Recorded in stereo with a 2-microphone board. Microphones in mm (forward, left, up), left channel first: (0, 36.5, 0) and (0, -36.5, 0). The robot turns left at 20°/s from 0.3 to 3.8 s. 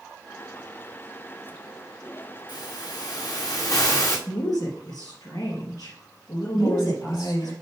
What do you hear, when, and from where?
2.5 s a hiss: 75° left (ahead or behind), 2.5 m; by 4.2 s 50° left (ahead or behind), 2.5 m
4.3 s a woman speaking: 60° left (ahead or behind), 3 m
6.5 s a woman speaking: 75° left (ahead or behind), 4.5 m